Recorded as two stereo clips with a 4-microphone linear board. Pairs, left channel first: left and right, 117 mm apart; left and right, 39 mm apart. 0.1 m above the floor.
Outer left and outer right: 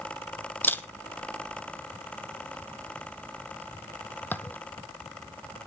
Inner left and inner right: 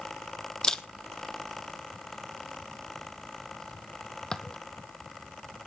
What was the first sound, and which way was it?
A camera shutter, 15° left (ahead or behind).